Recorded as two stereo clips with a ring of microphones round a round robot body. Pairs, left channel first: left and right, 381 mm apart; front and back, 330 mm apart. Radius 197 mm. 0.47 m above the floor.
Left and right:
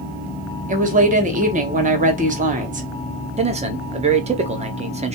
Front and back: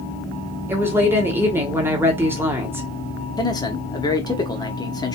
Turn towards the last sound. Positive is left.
turn(degrees=-55)